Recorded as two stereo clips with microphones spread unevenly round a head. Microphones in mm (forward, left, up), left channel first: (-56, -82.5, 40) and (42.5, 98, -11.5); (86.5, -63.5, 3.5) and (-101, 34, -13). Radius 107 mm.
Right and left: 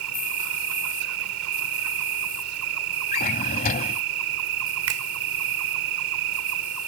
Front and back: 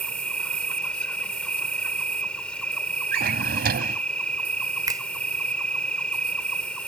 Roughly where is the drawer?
Behind.